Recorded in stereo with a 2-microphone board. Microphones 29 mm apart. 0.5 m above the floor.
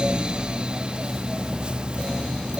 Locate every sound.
Only background noise.